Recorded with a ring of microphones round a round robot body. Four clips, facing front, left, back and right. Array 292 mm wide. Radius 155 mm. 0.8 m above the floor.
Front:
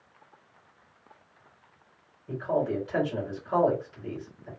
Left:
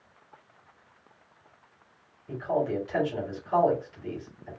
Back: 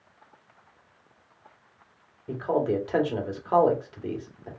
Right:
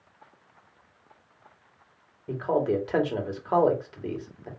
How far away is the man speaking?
About 2 m.